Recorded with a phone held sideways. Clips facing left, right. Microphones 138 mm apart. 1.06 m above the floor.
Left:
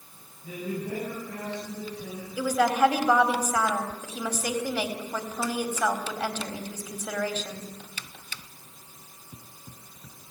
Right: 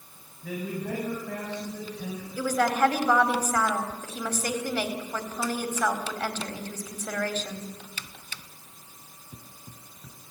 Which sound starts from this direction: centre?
A woman speaking, at 2.4 s.